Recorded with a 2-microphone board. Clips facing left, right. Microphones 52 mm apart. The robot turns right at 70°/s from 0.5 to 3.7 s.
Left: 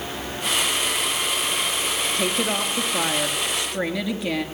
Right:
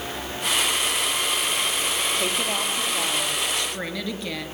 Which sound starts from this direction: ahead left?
A woman speaking, at 2.2 s.